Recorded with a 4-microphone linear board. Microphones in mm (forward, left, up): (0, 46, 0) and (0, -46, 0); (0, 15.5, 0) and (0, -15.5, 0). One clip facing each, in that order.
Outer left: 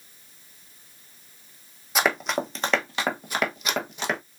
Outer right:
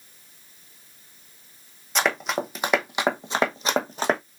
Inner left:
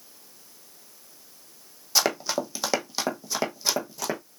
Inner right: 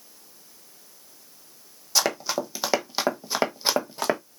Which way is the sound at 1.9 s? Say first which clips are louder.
Even, even; 5° left (ahead or behind).